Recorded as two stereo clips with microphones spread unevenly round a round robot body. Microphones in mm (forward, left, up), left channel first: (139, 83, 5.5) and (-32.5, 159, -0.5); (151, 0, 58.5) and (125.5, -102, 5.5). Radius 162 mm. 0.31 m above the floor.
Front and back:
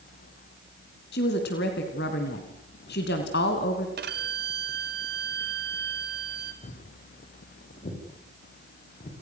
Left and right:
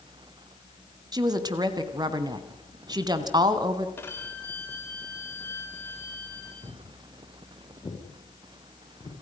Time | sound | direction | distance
1.1 | a woman speaking | 75° right | 3 m
4.0 | a violin | 165° left | 1.7 m
6.6 | footsteps | 10° left | 8.5 m